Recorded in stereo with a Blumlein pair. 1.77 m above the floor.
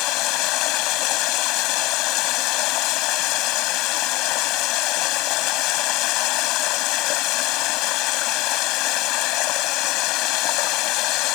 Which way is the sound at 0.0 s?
40° left.